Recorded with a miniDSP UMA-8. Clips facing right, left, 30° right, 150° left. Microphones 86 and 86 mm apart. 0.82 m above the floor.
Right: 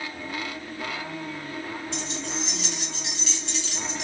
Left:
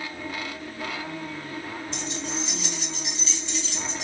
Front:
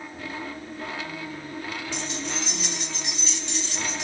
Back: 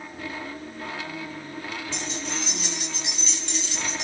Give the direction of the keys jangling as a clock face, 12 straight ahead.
2 o'clock.